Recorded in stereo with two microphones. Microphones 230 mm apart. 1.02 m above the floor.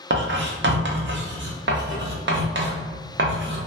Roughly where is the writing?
Right.